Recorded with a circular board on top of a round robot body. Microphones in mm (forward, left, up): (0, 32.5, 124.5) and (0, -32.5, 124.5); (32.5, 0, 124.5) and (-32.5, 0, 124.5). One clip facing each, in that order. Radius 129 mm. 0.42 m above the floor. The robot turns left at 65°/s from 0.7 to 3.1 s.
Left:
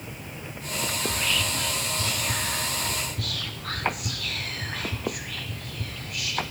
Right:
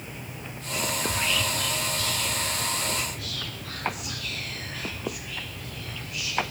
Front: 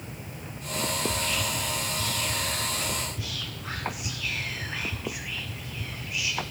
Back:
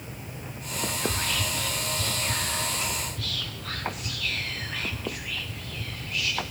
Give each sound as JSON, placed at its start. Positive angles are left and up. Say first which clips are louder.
{"t": 1.0, "sound": "whispering", "louder": "left 1 dB, even", "azimuth_deg": -150, "distance_m": 1.3}